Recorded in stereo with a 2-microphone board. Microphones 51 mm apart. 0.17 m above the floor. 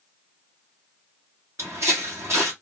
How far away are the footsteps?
About 1.3 m.